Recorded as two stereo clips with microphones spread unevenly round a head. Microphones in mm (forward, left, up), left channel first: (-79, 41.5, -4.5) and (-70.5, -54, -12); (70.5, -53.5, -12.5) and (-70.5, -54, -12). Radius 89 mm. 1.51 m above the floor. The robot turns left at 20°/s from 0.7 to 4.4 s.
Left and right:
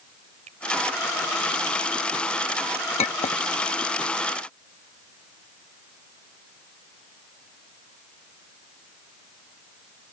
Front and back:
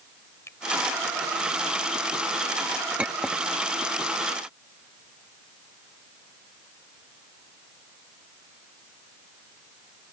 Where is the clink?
100° left; by 3.4 s 90° left.